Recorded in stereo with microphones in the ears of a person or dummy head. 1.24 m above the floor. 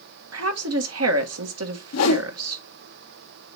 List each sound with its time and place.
0.3 s a woman speaking: 70° right (ahead or behind), 1.4 m
1.9 s a whoosh: 80° left, 1.0 m